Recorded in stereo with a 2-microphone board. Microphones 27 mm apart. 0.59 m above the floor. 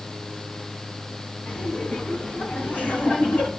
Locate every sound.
1.5 s laughter: 70° left (ahead or behind), 6 m; by 3.5 s 80° left, 7 m